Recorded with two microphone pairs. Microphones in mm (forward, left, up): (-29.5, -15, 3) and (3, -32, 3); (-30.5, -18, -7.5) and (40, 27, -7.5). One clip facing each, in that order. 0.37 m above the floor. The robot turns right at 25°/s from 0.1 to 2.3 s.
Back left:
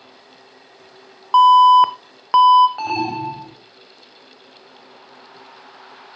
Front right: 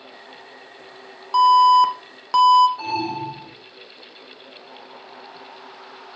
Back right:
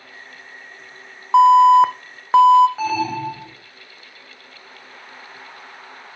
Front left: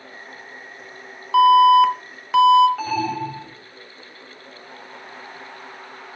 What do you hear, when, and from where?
1.3 s an alarm: straight behind, 0.5 m; by 2.7 s 155° right, 0.5 m
2.8 s an alarm: 130° left, 2.5 m